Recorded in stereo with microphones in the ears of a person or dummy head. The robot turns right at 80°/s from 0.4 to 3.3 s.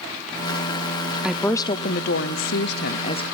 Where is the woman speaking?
5° right, 0.7 m; by 3.2 s 155° left, 0.7 m.